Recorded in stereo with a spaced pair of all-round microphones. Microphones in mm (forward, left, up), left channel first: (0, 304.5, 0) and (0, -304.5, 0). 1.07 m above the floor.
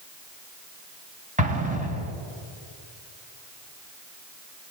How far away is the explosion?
About 3.5 m.